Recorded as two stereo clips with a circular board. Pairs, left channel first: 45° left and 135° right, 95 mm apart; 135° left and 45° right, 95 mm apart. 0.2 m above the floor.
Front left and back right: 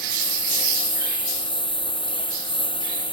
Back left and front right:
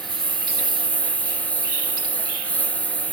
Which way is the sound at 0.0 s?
60° left.